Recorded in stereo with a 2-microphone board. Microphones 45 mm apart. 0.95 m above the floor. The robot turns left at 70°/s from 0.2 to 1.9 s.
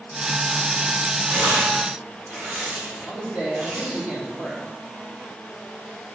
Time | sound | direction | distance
1.3 | tearing paper | 75° right (ahead or behind) | 3.5 m
3.0 | a man speaking | 35° right (ahead or behind) | 3 m